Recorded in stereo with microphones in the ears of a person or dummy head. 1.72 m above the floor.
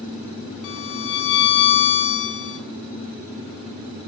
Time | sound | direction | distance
0.6 | a violin | 65° left (ahead or behind) | 2 m